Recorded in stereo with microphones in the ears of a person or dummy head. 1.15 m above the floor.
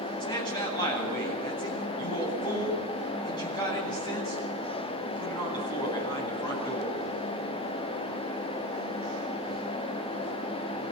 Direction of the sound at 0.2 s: 30° left (ahead or behind).